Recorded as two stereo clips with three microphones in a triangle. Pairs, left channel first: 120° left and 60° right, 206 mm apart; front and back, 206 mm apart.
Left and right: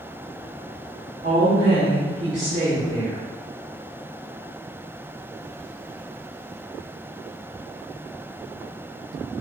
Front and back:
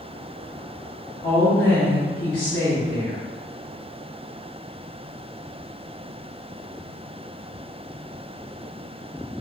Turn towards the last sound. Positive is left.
turn(degrees=-30)